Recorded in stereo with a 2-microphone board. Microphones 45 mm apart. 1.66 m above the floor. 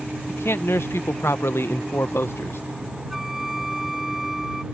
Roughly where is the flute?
Centre.